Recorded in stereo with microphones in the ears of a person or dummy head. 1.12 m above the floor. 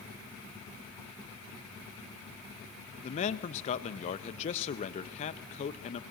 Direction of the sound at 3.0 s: 45° left (ahead or behind).